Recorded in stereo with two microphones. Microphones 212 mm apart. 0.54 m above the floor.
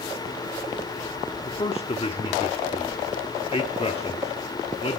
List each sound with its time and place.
1.4 s a man speaking: 30° left (ahead or behind), 1.1 m